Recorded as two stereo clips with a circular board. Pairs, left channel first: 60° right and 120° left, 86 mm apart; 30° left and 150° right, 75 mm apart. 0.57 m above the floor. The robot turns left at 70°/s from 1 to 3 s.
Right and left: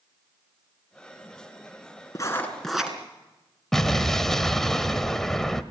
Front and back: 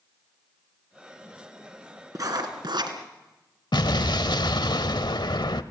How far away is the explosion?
About 1.1 m.